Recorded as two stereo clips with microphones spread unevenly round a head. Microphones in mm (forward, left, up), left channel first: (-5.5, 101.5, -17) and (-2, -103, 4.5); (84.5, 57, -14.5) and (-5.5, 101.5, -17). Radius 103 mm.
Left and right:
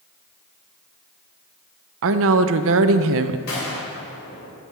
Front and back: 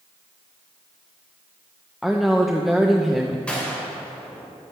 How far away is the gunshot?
About 3.5 m.